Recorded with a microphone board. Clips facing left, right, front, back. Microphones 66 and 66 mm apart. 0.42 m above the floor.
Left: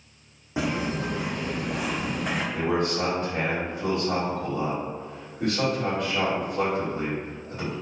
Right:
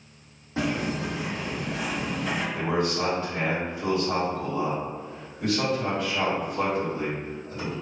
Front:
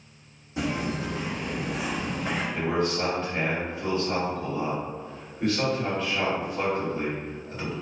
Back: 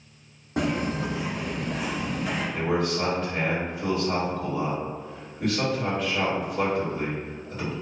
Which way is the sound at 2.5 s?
95° left.